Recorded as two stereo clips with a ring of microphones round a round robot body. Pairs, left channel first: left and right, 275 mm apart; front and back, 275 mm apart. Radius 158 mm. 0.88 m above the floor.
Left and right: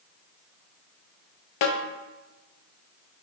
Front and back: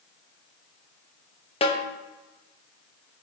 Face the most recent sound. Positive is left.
turn(degrees=70)